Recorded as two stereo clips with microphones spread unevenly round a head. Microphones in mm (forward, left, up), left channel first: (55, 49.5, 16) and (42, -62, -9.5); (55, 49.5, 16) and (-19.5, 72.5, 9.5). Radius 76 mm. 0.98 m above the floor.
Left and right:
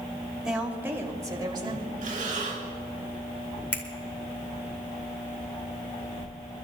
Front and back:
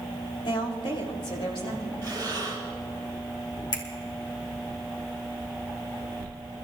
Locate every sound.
0.5 s a woman speaking: 15° right, 2.5 m; by 1.9 s 60° right, 3 m
2.0 s breathing: 85° right, 4 m
3.7 s a finger snap: straight ahead, 2.5 m